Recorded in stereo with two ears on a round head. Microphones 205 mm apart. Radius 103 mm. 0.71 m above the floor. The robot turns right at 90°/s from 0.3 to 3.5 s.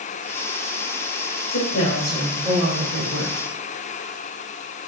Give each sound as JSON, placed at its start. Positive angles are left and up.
{"t": 1.5, "sound": "a woman speaking", "azimuth_deg": 100, "distance_m": 3.0}